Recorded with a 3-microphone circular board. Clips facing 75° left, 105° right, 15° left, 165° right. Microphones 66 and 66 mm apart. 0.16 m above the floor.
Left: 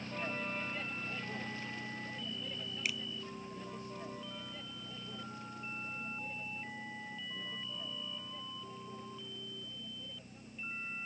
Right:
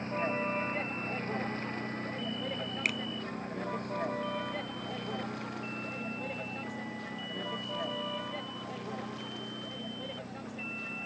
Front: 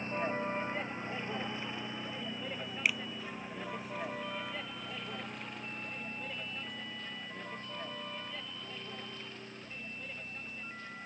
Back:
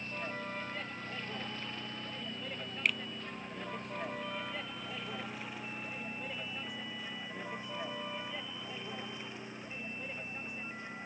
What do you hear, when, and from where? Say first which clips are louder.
0.0 s a vehicle: right 8 dB, front 6 dB; 50° right; by 11.1 s 90° right
2.9 s a finger snap: right 5 dB, even; 65° right